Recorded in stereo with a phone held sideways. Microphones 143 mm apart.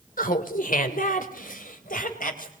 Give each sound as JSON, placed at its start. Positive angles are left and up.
{"t": 0.2, "sound": "laughter", "side_deg": 70, "distance_m": 2.5}